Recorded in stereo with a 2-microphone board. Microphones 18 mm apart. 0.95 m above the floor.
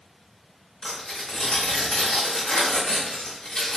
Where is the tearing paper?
45° left (ahead or behind), 0.9 m.